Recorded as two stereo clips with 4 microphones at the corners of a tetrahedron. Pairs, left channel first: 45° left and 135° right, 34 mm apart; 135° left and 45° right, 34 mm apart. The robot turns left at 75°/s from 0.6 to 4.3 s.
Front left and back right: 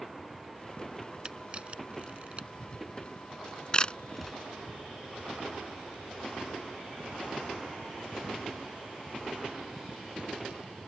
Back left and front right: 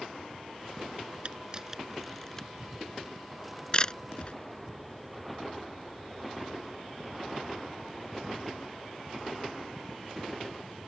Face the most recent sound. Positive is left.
turn(degrees=120)